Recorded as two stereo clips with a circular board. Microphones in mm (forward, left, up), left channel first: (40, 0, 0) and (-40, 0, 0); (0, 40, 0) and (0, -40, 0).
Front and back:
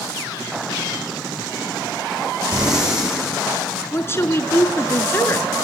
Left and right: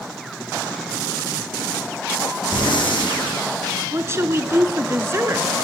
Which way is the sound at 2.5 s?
95° left.